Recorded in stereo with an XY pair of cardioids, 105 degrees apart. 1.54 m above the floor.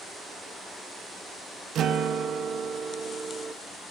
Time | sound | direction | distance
1.8 | a guitar | 60° right | 0.9 m